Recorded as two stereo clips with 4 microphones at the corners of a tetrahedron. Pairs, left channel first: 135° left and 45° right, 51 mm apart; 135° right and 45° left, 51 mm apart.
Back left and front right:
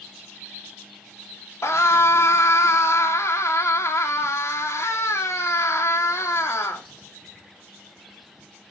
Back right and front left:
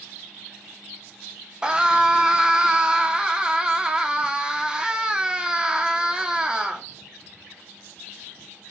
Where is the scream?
115° left, 2.5 m.